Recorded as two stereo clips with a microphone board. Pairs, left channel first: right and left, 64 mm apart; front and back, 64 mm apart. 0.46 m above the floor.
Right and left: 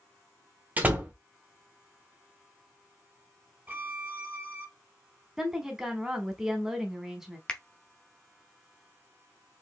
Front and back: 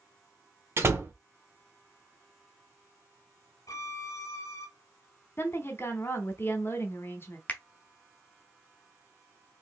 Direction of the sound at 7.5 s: 30° right.